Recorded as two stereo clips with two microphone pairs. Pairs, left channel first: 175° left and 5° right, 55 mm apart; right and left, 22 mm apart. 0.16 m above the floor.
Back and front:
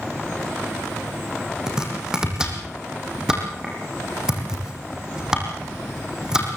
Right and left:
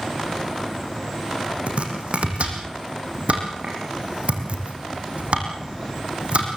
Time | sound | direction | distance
1.7 | chopping | 70° left | 4 m